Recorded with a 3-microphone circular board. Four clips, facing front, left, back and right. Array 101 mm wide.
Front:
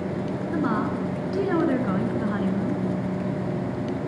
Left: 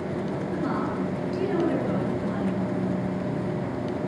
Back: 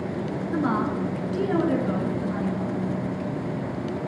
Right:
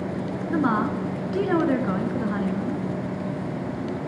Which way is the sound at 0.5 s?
95° right.